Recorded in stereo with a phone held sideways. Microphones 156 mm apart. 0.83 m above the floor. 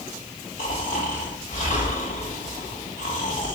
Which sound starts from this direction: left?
Snoring, at 0.6 s.